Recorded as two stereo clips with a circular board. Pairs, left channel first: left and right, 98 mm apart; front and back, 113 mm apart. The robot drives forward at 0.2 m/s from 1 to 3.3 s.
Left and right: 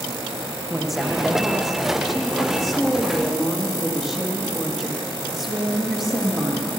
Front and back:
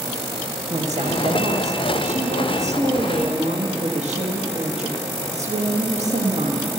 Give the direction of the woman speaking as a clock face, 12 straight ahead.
6 o'clock.